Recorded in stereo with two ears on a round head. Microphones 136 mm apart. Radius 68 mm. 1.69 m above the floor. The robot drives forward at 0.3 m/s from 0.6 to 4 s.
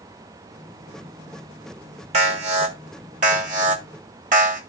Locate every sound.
2.1 s an alarm: 45° right (ahead or behind), 2 m; by 4.6 s 55° right (ahead or behind), 1.7 m